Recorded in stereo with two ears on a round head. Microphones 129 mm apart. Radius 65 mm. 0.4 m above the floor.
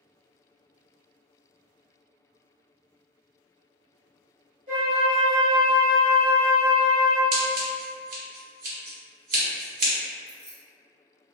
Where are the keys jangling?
15° right (ahead or behind), 1.2 m.